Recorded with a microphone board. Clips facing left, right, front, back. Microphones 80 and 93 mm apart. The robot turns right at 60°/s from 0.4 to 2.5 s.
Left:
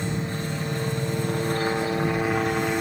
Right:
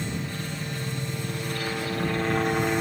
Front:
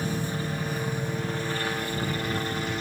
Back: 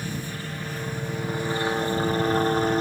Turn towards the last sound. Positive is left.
turn(degrees=180)